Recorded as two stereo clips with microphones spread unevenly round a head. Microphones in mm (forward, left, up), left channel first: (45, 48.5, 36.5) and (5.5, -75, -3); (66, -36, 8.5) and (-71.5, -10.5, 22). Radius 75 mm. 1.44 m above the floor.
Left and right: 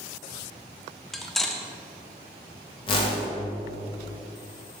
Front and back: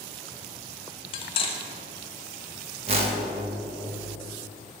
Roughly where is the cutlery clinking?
Ahead.